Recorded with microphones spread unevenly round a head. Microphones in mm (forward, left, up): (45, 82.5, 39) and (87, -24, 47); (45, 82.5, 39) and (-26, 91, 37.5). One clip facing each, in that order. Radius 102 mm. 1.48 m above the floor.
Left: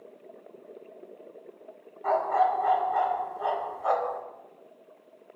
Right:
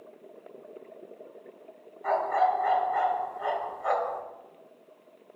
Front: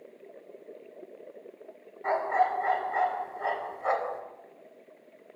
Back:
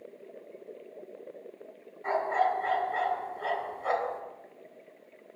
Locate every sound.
2.0 s a dog barking: 55° left, 1.7 m